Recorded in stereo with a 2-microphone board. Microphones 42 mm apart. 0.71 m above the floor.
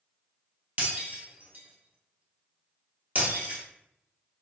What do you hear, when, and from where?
0.8 s breaking glass: 45° right (ahead or behind), 1.1 m